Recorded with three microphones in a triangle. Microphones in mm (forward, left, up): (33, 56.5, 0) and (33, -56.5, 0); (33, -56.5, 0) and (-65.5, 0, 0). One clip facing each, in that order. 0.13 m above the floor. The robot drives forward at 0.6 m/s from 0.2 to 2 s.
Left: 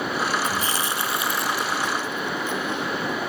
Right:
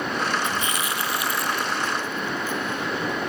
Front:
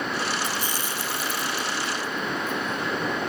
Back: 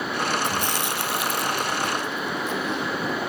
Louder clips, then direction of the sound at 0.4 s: Left 1 dB, back 4 dB; 140° left.